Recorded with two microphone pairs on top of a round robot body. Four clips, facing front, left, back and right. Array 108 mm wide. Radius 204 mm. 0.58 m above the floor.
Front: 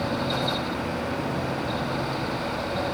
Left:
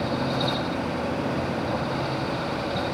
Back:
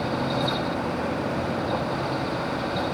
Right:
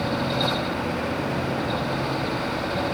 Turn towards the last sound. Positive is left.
No sound to turn to.